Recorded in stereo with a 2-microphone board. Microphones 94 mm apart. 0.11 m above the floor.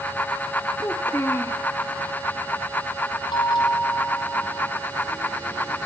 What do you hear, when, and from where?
0.8 s a child speaking: 30° left (ahead or behind), 1.1 m
3.3 s a bell: 50° left (ahead or behind), 3.5 m